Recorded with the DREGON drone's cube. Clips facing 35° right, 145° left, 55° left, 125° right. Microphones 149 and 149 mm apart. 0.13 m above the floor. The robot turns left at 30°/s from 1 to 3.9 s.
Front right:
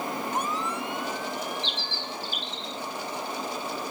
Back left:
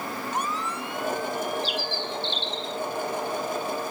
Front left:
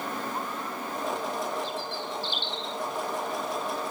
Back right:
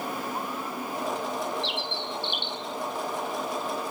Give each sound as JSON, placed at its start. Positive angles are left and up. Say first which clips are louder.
{"t": 1.6, "sound": "a bird", "louder": "back left 6 dB, back right 1 dB", "azimuth_deg": -130}